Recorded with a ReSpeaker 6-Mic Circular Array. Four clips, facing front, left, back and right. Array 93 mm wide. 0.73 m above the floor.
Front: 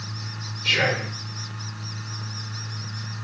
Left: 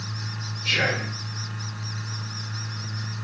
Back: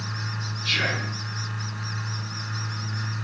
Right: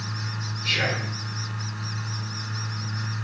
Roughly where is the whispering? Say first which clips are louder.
Left 2 dB, front 5 dB; ahead.